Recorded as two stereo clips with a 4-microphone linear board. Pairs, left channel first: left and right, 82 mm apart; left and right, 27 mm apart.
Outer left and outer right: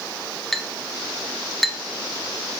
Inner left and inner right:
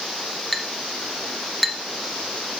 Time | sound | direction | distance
0.5 | a clink | centre (ahead or behind) | 0.9 m